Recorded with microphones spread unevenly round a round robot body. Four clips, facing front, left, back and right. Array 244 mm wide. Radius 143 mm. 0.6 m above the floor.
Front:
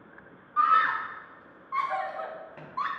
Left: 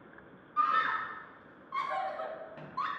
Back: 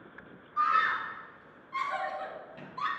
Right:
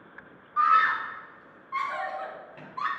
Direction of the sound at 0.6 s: 5° left.